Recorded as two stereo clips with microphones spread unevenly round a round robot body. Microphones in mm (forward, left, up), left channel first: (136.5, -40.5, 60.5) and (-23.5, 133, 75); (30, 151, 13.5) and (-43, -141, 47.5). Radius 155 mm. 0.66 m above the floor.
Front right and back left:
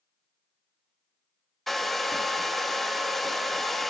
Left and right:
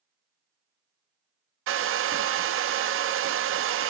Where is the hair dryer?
130° right, 0.9 m.